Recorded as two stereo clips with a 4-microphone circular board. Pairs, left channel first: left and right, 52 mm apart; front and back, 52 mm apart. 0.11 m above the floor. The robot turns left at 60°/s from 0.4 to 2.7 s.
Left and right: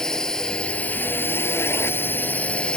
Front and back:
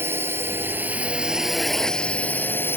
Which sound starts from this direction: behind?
A drone, at 0.0 s.